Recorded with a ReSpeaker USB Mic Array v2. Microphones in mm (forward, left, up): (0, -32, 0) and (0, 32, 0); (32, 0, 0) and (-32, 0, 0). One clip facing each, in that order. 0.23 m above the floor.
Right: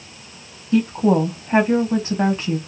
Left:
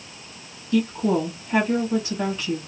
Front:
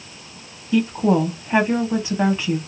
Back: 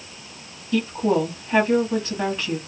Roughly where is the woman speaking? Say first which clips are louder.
Right 4 dB, front 3 dB; ahead right.